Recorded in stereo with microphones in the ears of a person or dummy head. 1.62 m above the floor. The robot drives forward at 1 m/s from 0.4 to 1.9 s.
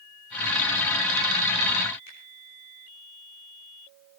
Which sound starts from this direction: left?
A finger snap, at 2.1 s.